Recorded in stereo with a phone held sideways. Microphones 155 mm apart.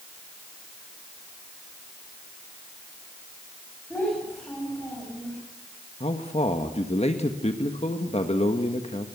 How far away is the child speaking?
About 7 m.